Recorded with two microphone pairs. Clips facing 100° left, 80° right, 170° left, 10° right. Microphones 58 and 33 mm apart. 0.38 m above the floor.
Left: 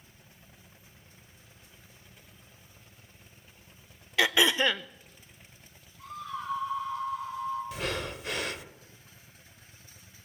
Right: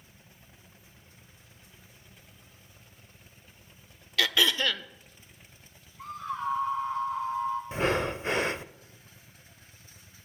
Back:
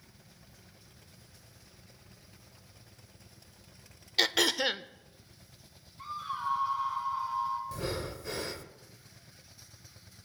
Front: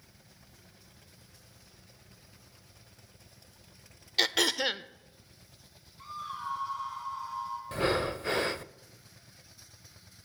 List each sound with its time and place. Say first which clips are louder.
4.2 s throat clearing: left 2 dB, even; 95° left, 0.5 m
6.0 s a scream: right 4 dB, back 3 dB; 110° right, 8.5 m
7.7 s breathing: right 7 dB, front 7 dB; 30° right, 0.6 m